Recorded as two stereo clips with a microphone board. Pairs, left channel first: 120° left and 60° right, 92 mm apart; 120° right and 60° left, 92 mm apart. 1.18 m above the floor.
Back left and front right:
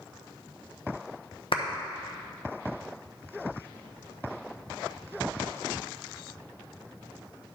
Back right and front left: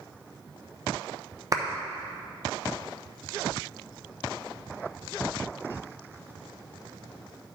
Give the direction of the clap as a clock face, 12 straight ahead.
8 o'clock.